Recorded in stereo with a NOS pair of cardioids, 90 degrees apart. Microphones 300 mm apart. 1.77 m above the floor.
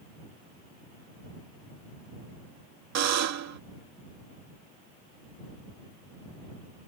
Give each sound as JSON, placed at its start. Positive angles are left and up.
{"t": 3.0, "sound": "a buzzer", "azimuth_deg": -65}